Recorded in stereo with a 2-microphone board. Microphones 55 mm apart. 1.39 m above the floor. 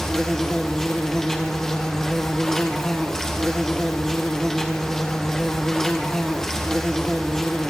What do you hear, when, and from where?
0.0 s an insect: 10° left (ahead or behind), 2.5 m